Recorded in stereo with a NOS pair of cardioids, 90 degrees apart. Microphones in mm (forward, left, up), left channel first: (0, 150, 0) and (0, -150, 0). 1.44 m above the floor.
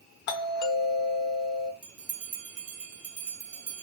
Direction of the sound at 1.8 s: 55° right.